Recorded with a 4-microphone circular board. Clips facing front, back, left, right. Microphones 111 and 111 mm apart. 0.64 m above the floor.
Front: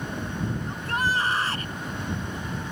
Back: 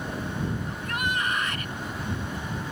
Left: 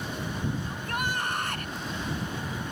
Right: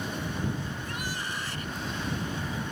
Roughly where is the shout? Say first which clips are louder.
Front 3 dB, left 4 dB; ahead left.